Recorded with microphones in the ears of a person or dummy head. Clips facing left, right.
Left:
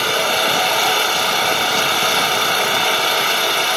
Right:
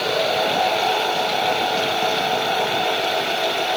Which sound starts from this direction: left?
An engine running, at 0.0 s.